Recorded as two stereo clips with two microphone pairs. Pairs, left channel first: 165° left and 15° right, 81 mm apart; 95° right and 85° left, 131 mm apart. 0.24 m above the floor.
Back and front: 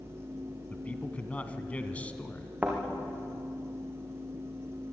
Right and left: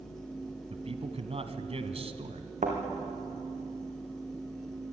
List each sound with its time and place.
0.7 s a man speaking: 100° left, 2 m
2.6 s a thud: 60° left, 6 m